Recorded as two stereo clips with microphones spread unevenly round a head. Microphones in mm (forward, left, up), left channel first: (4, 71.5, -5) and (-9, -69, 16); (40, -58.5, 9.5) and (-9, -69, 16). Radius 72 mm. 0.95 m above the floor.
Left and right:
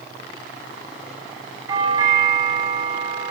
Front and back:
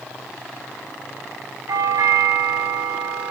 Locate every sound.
1.7 s a doorbell: 160° right, 7 m